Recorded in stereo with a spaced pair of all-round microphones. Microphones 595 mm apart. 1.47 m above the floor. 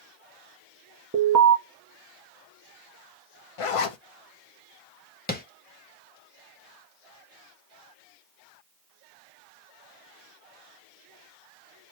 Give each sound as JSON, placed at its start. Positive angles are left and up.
{"t": 1.1, "sound": "an alarm", "side_deg": -25, "distance_m": 0.9}
{"t": 3.6, "sound": "a zipper", "side_deg": 65, "distance_m": 0.6}
{"t": 5.3, "sound": "tapping", "side_deg": 15, "distance_m": 0.7}